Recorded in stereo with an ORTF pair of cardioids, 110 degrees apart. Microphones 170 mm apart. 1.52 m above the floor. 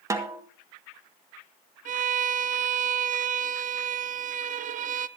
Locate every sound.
0.1 s a snare drum: 20° right, 1.7 m
1.9 s a violin: 50° right, 0.6 m